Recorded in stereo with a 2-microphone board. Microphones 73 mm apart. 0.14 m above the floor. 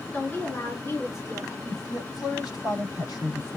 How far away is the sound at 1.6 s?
About 5 m.